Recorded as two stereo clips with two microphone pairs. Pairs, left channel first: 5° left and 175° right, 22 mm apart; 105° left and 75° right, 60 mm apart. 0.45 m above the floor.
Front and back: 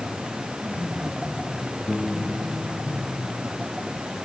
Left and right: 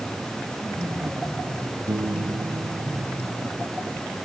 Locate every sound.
1.9 s a piano: 70° right